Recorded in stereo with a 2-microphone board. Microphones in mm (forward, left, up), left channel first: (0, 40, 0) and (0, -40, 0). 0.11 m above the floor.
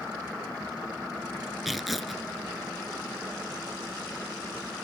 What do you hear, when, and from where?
1.6 s tearing paper: centre (ahead or behind)